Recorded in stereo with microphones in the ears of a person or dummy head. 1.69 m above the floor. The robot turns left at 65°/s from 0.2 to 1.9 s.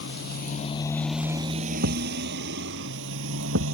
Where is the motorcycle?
70° left (ahead or behind); by 3.8 s 80° right.